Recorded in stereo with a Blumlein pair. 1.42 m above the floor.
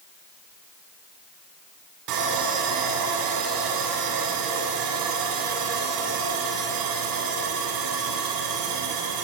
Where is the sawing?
40° right, 9 m.